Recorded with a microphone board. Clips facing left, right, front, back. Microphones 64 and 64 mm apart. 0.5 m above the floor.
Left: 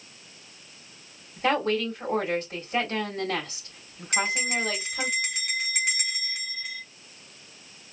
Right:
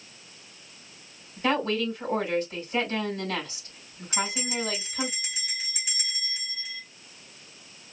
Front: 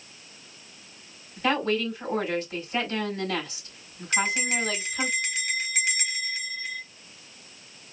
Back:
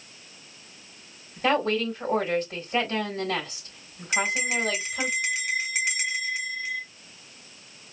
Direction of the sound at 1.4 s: 140° left.